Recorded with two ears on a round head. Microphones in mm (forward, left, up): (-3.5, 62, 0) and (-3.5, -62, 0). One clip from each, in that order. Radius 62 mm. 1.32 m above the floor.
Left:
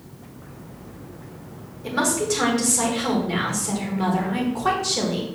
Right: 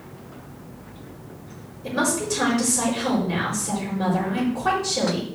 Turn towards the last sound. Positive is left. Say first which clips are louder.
# left 1 dB
turn(degrees=25)  # may be behind; listen again after turning